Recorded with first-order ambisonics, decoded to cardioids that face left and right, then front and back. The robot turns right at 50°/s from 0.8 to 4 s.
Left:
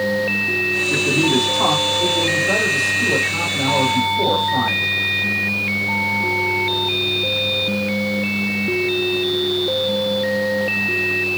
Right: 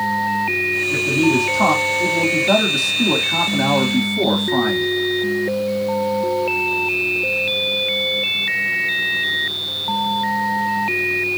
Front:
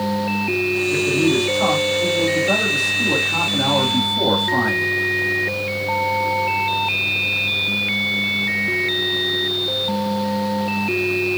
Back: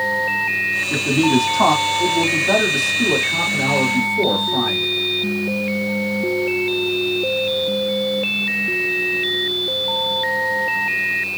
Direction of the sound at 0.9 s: 155° left.